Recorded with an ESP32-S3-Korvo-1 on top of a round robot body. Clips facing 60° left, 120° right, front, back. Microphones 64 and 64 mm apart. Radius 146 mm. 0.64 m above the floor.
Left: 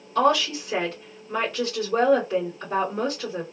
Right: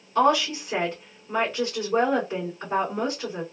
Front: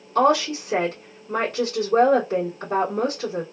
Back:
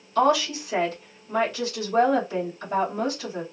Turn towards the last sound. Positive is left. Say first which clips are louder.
# even, front 2 dB
turn(degrees=-30)